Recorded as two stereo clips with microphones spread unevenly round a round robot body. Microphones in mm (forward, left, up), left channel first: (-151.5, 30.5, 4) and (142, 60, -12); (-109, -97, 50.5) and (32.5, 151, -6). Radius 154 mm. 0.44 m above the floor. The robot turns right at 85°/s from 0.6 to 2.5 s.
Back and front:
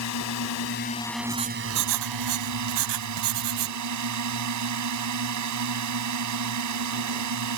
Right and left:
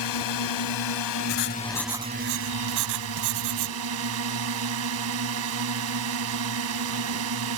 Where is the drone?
135° right; by 7.6 s 30° left.